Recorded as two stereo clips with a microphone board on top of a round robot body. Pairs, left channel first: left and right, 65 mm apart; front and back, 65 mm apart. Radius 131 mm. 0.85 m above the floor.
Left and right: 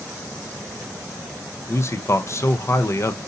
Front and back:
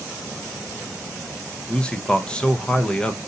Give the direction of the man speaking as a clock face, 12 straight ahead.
10 o'clock.